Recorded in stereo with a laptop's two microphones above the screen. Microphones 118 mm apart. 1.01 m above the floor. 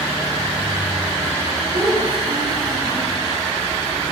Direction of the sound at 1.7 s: 35° right (ahead or behind).